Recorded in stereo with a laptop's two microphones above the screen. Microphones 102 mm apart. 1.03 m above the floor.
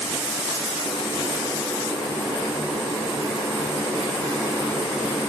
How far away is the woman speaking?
No woman speaking in this recording.